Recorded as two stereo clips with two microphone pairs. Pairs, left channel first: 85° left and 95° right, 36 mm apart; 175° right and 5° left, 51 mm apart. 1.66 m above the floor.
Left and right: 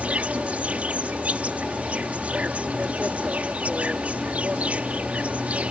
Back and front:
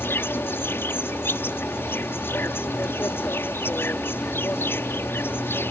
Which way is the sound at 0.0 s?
140° right.